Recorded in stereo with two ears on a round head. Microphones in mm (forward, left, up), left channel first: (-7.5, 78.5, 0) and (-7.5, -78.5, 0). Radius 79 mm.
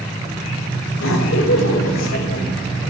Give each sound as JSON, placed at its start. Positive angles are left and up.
{"t": 0.9, "sound": "laughter", "side_deg": 80, "distance_m": 4.0}